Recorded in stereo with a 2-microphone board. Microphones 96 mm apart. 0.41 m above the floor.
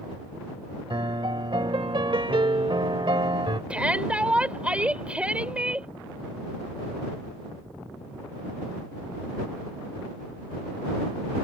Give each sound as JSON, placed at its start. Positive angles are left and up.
{"t": 0.9, "sound": "a piano", "side_deg": -60}
{"t": 3.7, "sound": "a shout", "side_deg": -15}